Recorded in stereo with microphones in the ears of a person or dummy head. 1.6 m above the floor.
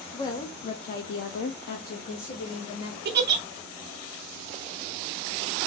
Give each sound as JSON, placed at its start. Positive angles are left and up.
{"t": 0.1, "sound": "a woman speaking", "side_deg": 20, "distance_m": 0.6}
{"t": 3.0, "sound": "a giggle", "side_deg": -55, "distance_m": 0.5}